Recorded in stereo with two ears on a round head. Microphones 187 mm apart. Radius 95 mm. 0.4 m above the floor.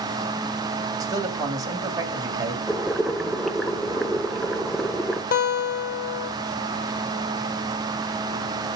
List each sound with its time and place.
1.0 s a man speaking: 20° right (ahead or behind), 3 m
2.7 s boiling: centre (ahead or behind), 1.0 m
5.3 s a guitar: 45° left (ahead or behind), 1.9 m